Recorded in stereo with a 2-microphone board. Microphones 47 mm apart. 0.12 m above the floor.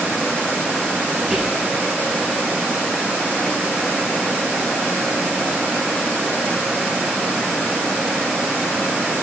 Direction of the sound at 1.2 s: 10° right (ahead or behind).